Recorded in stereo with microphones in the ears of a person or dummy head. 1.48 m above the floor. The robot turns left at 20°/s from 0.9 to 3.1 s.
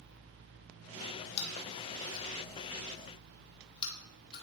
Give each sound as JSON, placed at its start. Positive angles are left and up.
{"t": 1.4, "sound": "chewing", "side_deg": 60, "distance_m": 1.9}